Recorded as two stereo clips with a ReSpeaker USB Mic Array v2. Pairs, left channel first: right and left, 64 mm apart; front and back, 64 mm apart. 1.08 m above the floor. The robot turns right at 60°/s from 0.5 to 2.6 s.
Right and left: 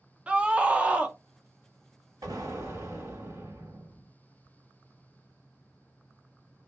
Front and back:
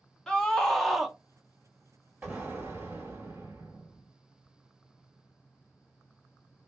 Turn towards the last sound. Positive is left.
turn(degrees=130)